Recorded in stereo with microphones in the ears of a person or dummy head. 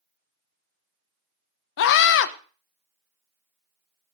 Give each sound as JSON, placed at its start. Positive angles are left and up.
{"t": 1.8, "sound": "a scream", "side_deg": 65, "distance_m": 1.3}